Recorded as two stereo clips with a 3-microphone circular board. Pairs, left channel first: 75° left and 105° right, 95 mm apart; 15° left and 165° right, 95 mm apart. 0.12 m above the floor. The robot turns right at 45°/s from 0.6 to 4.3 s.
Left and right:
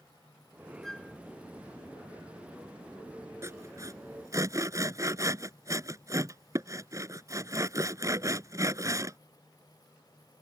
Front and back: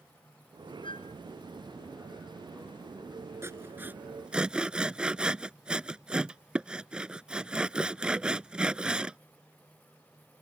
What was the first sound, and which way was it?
A flute, 15° right.